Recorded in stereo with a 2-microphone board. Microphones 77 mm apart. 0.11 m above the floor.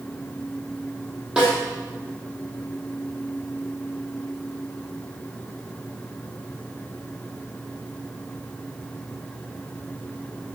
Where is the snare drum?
10° right (ahead or behind), 4 m.